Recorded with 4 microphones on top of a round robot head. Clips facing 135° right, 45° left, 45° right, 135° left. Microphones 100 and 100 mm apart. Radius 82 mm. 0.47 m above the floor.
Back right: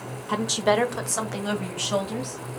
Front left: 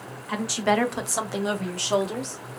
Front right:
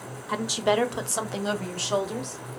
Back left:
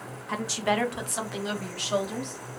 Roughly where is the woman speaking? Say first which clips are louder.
Back right 1 dB, front right 3 dB; behind right.